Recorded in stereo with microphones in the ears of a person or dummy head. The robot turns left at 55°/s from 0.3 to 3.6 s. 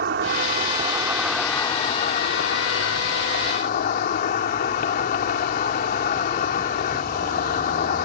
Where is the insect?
120° right; by 8.1 s 55° left.